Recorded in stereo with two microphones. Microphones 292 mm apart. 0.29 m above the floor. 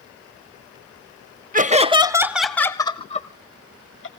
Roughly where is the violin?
No violin in this recording.